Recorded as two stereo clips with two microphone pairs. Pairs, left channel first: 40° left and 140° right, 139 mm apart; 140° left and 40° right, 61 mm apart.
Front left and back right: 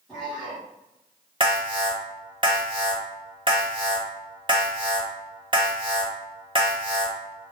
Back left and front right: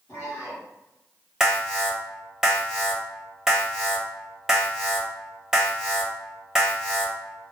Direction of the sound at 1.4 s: 125° right.